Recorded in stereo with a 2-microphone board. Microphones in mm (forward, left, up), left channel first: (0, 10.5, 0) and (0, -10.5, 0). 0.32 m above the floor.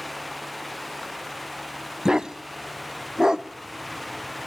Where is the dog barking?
30° right (ahead or behind), 0.6 m.